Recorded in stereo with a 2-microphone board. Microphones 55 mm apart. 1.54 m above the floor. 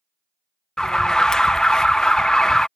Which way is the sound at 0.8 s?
10° left (ahead or behind).